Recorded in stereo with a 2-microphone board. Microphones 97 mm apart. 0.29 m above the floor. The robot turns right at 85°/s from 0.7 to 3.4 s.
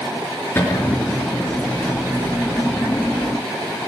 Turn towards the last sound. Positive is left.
turn(degrees=-105)